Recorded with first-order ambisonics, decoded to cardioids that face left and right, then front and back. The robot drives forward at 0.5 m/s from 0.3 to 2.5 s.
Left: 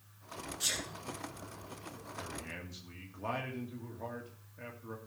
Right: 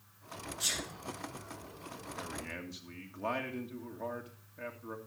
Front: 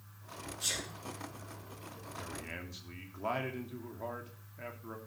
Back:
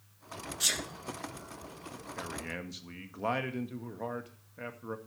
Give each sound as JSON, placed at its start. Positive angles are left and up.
{"t": 0.6, "sound": "a sneeze", "azimuth_deg": 180, "distance_m": 2.0}
{"t": 2.2, "sound": "a man speaking", "azimuth_deg": -170, "distance_m": 1.9}